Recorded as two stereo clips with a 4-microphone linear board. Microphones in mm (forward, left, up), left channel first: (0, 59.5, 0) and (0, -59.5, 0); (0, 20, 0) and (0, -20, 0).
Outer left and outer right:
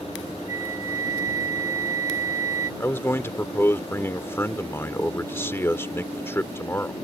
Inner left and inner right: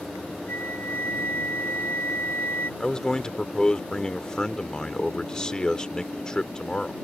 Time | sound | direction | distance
0.5 | a flute | 75° left (ahead or behind) | ?
2.8 | a man speaking | 20° left (ahead or behind) | ?